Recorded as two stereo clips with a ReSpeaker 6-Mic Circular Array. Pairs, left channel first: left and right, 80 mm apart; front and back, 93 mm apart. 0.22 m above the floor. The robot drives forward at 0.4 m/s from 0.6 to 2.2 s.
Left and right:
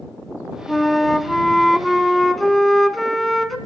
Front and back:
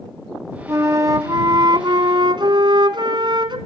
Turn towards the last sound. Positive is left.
turn(degrees=180)